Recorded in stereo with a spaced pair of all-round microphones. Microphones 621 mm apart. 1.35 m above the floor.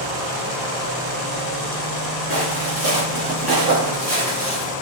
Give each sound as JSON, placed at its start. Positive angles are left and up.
{"t": 2.3, "sound": "footsteps", "side_deg": -30, "distance_m": 1.6}